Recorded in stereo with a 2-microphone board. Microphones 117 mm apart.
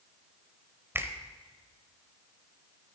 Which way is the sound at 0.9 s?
20° right (ahead or behind).